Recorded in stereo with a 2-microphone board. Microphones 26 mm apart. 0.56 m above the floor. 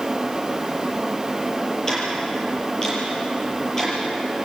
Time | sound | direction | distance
1.9 | ticking | 20° left (ahead or behind) | 7 m